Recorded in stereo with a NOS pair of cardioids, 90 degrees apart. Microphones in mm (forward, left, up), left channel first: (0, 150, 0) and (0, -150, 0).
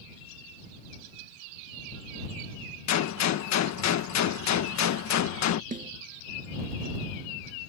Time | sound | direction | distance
2.9 | a gunshot | 65° left | ?
5.7 | a snare drum | 25° right | ?